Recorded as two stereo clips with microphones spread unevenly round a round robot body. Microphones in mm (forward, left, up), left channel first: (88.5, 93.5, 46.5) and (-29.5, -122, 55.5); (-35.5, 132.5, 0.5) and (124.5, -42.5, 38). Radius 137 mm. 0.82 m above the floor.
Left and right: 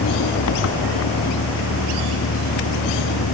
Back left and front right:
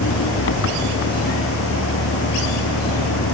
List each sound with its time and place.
0.0 s an engine running: 100° left